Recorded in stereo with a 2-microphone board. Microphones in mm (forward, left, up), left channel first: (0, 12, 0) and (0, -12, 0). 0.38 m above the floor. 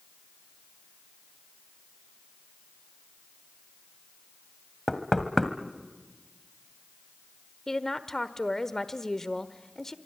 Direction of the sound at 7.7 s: 20° left (ahead or behind).